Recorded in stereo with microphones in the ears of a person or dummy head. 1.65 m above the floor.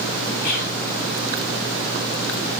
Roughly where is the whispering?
Left.